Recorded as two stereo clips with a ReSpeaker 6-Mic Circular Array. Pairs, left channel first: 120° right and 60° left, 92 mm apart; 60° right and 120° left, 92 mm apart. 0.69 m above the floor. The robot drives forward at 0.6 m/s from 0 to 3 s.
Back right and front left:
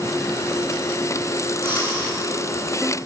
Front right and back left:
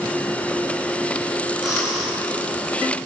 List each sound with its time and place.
1.6 s breathing: 155° right, 8.5 m